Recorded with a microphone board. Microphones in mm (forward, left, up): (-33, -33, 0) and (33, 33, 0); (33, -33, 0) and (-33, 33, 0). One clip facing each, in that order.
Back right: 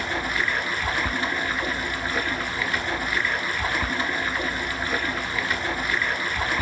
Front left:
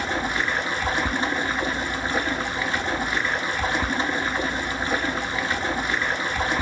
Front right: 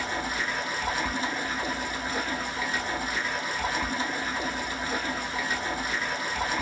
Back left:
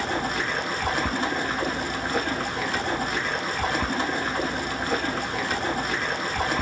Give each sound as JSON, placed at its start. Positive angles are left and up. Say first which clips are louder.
{"t": 0.0, "sound": "running water", "louder": "front left 1 dB, back left 4 dB", "azimuth_deg": 110, "distance_m": 0.7}